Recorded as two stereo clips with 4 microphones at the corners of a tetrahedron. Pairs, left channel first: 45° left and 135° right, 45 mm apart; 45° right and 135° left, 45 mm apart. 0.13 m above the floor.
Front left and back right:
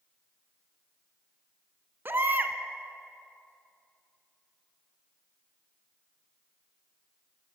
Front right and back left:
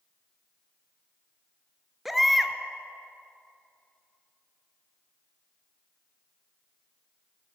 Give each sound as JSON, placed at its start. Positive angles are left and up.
{"t": 2.0, "sound": "a baby crying", "azimuth_deg": -140, "distance_m": 0.5}